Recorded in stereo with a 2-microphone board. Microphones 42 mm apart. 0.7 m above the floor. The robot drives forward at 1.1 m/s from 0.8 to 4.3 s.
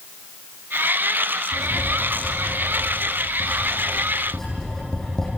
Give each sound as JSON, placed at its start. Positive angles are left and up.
{"t": 1.5, "sound": "writing", "side_deg": 15, "distance_m": 7.5}